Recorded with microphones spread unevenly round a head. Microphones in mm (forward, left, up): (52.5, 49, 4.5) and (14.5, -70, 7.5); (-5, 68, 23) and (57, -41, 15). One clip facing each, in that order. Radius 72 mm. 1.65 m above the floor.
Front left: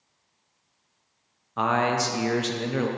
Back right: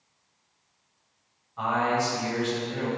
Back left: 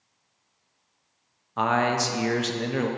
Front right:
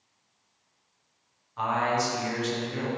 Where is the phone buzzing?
No phone buzzing in this recording.